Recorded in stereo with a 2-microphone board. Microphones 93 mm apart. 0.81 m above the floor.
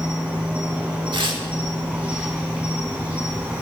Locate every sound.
0.0 s an insect: 15° right (ahead or behind), 4.5 m
1.1 s tearing paper: 65° right (ahead or behind), 1.5 m